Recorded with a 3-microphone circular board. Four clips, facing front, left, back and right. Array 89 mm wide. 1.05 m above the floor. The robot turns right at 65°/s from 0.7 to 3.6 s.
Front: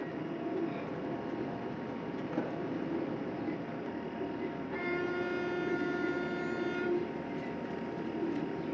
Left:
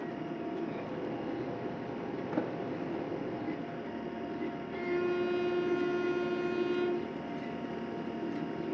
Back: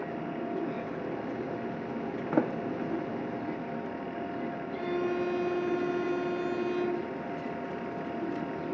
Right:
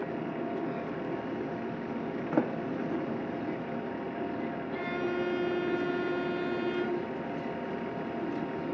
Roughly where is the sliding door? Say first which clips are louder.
Right 6 dB, back 8 dB; behind right.